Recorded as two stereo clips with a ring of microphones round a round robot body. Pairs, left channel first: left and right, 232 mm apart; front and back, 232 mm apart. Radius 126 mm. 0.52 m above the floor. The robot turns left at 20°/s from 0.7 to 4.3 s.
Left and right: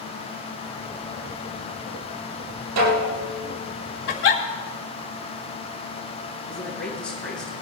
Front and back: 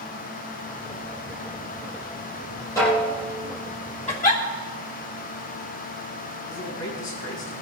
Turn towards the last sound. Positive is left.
turn(degrees=0)